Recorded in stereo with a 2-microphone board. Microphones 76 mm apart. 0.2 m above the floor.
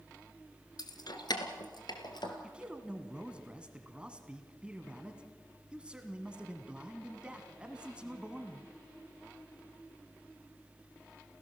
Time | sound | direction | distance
0.8 | keys jangling | 65° left (ahead or behind) | 1.6 m
2.4 | a man speaking | 15° right (ahead or behind) | 1.5 m